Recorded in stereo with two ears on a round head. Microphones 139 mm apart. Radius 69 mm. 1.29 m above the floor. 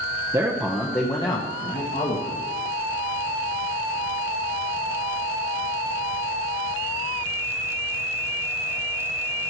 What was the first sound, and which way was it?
A man speaking, 25° right (ahead or behind).